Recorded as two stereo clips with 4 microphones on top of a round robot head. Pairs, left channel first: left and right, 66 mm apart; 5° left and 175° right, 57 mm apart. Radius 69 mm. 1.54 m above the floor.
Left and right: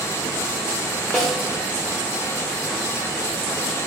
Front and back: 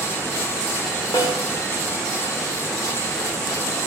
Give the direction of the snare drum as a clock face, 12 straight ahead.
12 o'clock.